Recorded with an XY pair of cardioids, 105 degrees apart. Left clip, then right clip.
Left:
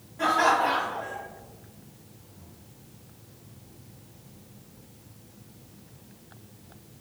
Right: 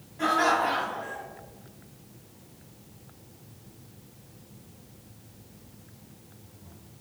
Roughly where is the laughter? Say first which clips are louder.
Left 2 dB; ahead.